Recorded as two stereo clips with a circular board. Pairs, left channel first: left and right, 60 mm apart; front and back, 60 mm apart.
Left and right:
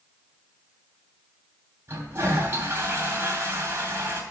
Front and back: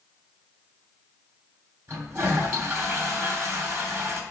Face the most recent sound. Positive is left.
turn(degrees=-140)